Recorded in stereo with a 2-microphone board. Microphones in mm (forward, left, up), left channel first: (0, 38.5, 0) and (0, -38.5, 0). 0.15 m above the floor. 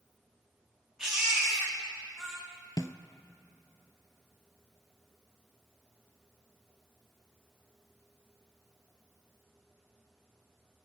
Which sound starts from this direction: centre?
A baby crying, at 1.0 s.